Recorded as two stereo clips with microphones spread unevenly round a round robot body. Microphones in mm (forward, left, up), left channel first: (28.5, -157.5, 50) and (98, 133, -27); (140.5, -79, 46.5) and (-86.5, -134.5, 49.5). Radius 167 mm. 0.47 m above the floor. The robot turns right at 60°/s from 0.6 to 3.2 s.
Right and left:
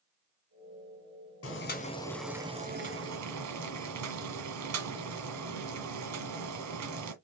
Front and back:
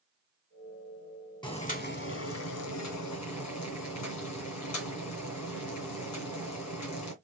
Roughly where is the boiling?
Ahead right.